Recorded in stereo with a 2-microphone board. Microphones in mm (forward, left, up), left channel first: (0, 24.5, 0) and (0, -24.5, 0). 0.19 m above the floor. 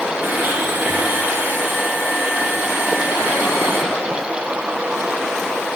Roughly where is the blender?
Right.